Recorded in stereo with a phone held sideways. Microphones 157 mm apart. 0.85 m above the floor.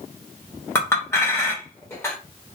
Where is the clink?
15° left (ahead or behind), 1.0 m.